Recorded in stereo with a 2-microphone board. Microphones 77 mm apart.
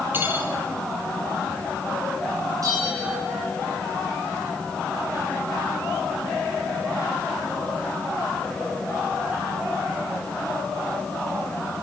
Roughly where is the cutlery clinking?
Right.